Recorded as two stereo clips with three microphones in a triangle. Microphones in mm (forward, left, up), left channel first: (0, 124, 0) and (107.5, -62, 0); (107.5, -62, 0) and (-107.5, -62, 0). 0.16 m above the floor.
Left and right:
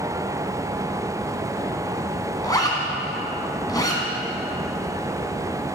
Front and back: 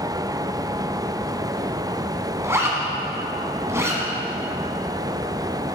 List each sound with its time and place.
2.4 s a zipper: 135° left, 1.1 m